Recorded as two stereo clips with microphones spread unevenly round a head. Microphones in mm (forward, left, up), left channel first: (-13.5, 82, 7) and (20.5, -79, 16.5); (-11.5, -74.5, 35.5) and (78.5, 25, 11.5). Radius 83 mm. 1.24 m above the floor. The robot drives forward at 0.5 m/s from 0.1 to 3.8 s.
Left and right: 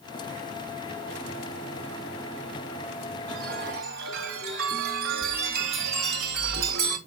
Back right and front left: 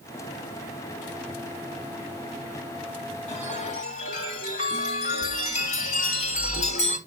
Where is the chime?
105° right, 3 m; by 7.0 s 110° right, 3 m.